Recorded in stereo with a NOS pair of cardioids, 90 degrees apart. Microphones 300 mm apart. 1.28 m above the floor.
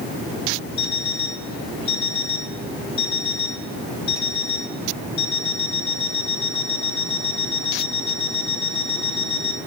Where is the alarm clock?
60° left, 3.5 m.